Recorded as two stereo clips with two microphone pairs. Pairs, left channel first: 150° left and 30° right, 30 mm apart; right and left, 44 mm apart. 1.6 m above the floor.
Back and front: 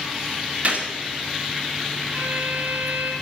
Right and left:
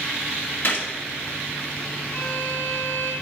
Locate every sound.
0.6 s a gunshot: 60° right, 2 m
2.1 s a violin: 40° right, 3 m